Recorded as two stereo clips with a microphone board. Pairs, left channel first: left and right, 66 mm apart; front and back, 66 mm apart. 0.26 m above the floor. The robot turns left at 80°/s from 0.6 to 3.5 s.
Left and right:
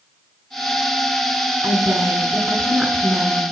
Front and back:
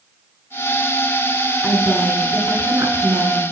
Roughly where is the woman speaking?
Ahead right.